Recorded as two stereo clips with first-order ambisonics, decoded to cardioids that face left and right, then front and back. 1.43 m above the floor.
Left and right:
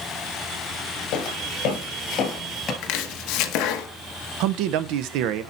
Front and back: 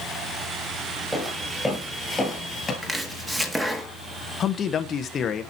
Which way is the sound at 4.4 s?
65° right.